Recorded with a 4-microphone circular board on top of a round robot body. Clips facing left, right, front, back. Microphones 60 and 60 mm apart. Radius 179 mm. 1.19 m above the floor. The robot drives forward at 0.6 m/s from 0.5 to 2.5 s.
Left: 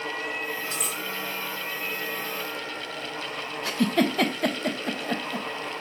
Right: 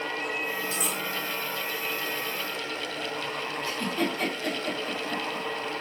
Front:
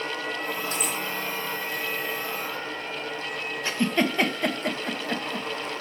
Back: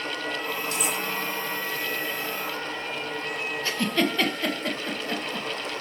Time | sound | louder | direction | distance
0.7 | cutlery clinking | right 1 dB, back 1 dB | 55° left | 2.5 m
3.6 | a giggle | left 7 dB, front 1 dB | 70° left | 1.3 m